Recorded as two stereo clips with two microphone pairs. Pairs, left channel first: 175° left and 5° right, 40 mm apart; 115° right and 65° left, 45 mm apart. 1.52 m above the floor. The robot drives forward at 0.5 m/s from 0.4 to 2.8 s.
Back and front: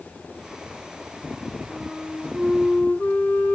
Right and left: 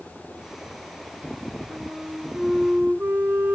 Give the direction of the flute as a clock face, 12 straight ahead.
8 o'clock.